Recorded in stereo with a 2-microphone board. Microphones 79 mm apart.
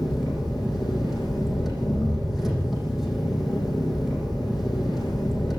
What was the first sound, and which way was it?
An engine running, 5° right (ahead or behind).